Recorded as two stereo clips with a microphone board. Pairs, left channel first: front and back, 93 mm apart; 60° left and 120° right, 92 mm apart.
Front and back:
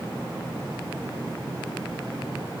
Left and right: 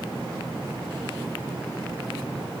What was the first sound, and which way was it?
Only background noise.